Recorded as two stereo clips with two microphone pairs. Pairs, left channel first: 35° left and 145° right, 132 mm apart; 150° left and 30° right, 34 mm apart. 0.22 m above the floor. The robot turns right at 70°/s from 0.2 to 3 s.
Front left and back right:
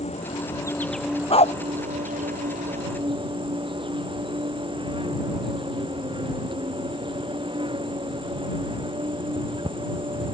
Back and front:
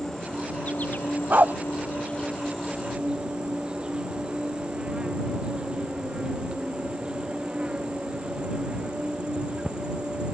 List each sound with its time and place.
0.0 s an insect: 70° left; by 10.3 s 95° right
1.3 s a dog barking: 5° right; by 1.5 s 10° left